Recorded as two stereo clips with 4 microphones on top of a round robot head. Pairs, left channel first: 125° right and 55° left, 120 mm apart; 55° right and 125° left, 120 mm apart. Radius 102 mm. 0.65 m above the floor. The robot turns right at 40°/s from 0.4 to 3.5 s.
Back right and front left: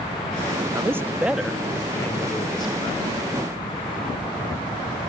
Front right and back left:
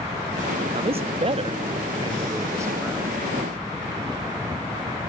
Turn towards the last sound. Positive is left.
turn(degrees=-140)